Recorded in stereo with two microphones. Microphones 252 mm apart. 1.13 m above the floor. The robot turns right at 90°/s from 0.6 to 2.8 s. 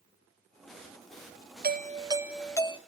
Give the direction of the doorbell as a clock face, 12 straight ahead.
2 o'clock.